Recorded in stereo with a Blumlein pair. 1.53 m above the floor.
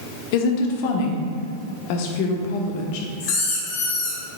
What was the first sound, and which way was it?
A woman speaking, 50° left.